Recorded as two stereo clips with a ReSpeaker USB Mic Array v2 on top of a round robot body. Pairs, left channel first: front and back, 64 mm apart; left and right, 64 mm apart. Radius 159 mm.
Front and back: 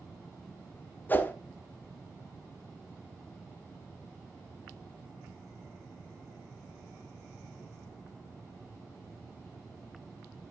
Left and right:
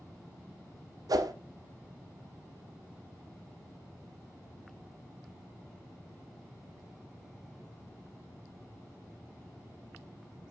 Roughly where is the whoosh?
Ahead right.